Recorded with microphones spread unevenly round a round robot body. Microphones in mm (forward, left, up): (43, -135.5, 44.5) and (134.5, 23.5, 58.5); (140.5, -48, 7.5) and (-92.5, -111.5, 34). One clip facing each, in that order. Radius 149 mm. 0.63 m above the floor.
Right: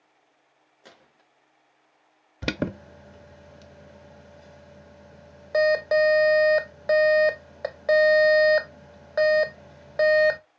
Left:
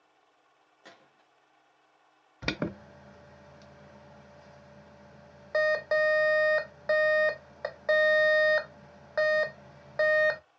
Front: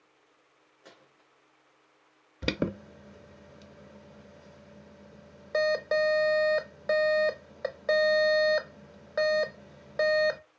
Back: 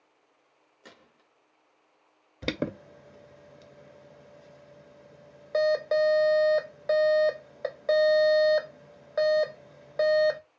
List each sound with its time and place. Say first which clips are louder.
0.8 s a gunshot: right 2 dB, back 2 dB; 155° right, 0.9 m
2.4 s an alarm: right 5 dB, front 1 dB; 60° right, 0.5 m